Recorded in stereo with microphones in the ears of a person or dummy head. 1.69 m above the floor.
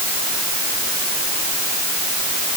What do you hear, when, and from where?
Only background noise.